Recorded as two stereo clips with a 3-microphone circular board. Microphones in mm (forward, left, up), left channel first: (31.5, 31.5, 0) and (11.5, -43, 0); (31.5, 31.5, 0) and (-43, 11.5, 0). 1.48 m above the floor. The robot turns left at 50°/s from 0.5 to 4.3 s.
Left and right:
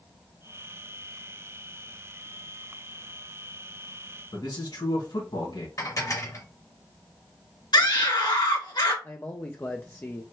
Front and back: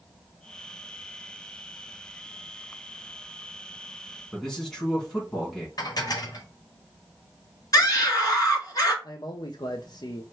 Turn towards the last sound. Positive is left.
turn(degrees=20)